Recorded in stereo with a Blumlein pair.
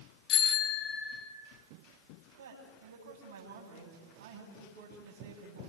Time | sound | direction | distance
0.3 | a bicycle bell | 35° left | 3 m
2.4 | a man speaking | 60° right | 9 m